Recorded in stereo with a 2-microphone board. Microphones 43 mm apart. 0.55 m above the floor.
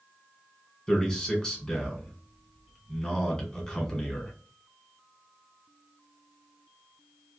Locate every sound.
0.9 s a man speaking: 20° left (ahead or behind), 1.7 m